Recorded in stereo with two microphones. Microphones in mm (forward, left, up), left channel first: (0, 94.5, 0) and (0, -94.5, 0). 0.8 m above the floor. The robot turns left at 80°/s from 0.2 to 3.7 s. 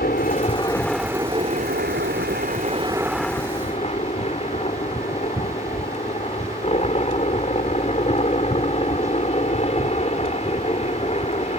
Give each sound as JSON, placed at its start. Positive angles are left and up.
{"t": 0.0, "sound": "a helicopter", "azimuth_deg": 60}